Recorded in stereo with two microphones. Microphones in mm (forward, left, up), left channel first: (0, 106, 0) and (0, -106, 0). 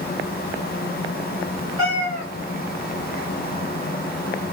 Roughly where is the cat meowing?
Left.